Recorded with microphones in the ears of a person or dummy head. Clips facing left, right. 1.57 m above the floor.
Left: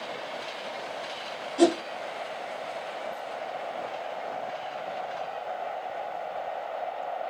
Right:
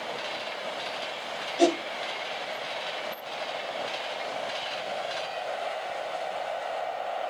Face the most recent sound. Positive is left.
turn(degrees=70)  # may be behind; listen again after turning